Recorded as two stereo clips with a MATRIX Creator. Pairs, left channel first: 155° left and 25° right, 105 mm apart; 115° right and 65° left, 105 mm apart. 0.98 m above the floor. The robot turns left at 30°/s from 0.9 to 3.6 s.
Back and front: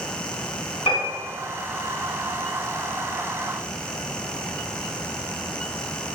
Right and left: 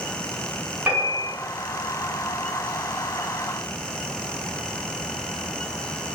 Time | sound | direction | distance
0.9 | a piano | 145° left | 1.0 m